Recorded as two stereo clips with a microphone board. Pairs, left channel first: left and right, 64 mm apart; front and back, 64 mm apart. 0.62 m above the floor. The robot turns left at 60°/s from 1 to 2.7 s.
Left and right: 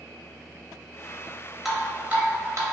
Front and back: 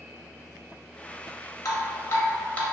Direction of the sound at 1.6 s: 5° right.